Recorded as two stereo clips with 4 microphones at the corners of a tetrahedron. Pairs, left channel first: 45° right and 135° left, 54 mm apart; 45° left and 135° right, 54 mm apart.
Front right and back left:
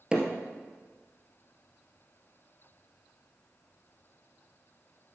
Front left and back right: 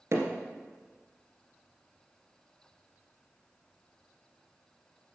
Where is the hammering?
150° right, 2 m.